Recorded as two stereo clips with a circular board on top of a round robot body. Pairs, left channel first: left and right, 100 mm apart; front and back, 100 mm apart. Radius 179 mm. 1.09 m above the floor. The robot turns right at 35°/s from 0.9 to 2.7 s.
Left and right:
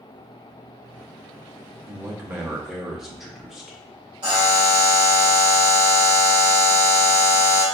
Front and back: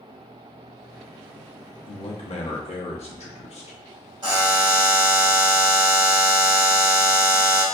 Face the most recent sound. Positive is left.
turn(degrees=-135)